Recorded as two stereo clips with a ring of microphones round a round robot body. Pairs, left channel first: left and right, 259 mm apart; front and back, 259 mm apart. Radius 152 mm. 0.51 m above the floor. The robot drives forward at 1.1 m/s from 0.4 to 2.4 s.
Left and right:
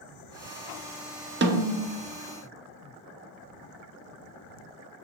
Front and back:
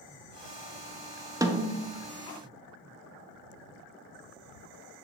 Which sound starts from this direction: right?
A snare drum, at 1.4 s.